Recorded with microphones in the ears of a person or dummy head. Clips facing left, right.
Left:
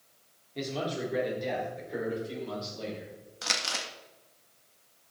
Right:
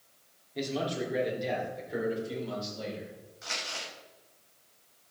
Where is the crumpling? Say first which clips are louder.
Left 4 dB; 75° left (ahead or behind), 1.5 m.